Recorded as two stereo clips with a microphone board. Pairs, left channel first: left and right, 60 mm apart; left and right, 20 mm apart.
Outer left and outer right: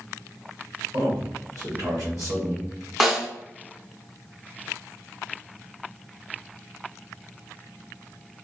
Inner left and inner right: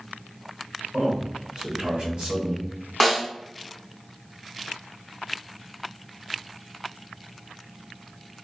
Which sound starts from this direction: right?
A man speaking, at 0.9 s.